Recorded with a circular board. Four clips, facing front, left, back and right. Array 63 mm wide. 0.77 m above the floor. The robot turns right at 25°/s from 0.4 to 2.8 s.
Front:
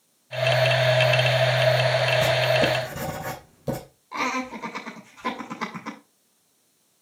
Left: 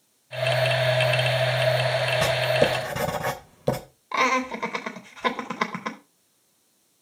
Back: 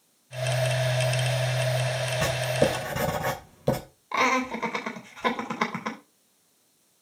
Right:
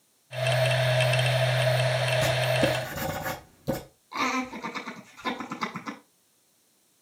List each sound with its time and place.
2.2 s writing: 100° left, 2.5 m; by 3.8 s 115° left, 2.5 m
4.1 s laughter: 120° left, 2.5 m